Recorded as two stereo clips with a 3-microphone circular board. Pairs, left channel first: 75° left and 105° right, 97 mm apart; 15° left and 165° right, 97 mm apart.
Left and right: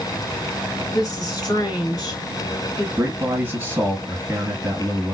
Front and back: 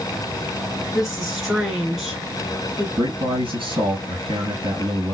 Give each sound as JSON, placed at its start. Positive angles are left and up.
{"t": 0.9, "sound": "a woman speaking", "azimuth_deg": 110, "distance_m": 2.5}
{"t": 3.0, "sound": "a man speaking", "azimuth_deg": -170, "distance_m": 3.0}